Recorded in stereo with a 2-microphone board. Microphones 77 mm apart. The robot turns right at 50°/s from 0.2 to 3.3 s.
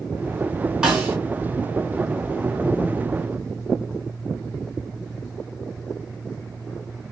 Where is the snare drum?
10° right (ahead or behind), 4 m; by 1.2 s 25° right (ahead or behind), 4 m.